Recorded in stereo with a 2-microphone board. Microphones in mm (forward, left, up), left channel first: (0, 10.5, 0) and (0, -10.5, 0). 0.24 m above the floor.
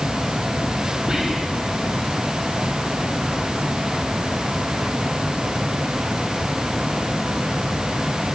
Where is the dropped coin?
No dropped coin in this recording.